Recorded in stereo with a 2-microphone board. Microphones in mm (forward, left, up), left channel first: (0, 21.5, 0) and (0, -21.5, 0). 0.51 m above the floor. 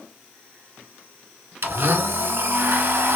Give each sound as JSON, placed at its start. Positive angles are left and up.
{"t": 1.6, "sound": "a blender", "side_deg": -65, "distance_m": 0.7}